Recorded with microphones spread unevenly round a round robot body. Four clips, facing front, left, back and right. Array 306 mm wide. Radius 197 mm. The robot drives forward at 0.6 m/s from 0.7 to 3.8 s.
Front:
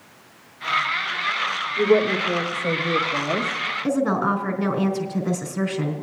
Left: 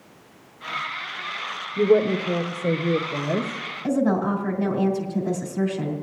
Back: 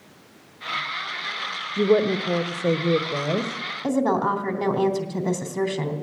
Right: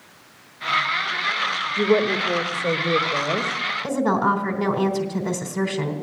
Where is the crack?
No crack in this recording.